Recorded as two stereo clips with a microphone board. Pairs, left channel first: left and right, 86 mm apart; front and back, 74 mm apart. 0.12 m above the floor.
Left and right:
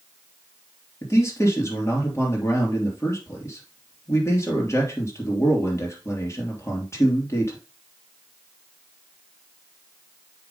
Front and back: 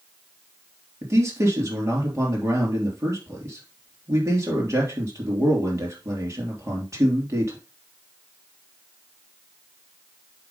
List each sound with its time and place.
1.0 s a man speaking: 140° left, 3 m